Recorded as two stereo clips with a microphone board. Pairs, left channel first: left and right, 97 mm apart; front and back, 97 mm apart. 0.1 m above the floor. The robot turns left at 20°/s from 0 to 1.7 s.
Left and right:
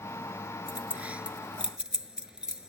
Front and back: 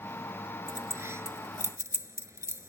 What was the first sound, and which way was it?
Keys jangling, 145° right.